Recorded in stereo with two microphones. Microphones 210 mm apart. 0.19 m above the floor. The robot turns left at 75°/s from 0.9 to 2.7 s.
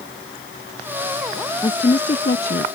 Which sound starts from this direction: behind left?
A woman speaking, at 1.6 s.